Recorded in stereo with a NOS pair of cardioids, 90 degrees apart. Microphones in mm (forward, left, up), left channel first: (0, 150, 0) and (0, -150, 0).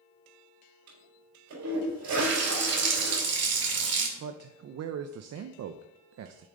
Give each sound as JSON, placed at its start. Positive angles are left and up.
{"t": 0.9, "sound": "a toilet flushing", "azimuth_deg": -70, "distance_m": 4.5}
{"t": 2.2, "sound": "a running tap", "azimuth_deg": -55, "distance_m": 2.5}
{"t": 4.2, "sound": "a man speaking", "azimuth_deg": -55, "distance_m": 0.7}